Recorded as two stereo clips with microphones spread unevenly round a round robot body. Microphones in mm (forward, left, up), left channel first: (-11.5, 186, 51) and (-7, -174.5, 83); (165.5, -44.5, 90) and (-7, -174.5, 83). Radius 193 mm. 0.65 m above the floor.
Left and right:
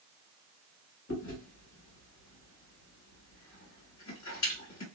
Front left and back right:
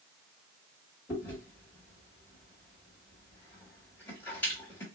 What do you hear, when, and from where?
1.1 s chewing: 120° left, 1.7 m